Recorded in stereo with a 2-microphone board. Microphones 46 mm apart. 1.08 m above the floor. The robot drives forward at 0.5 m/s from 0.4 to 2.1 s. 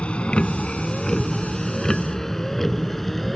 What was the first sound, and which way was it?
A vehicle, 30° left (ahead or behind).